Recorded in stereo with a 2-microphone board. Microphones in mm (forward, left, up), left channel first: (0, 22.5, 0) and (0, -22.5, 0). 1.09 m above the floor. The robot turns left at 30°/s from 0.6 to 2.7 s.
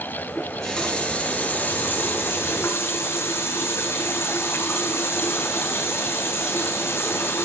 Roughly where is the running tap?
Behind.